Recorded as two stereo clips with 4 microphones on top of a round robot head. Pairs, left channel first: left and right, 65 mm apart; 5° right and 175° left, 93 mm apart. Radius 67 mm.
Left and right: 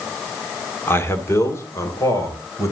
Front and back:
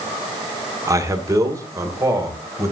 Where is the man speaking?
130° left, 1.9 m; by 2.7 s 120° left, 3.5 m.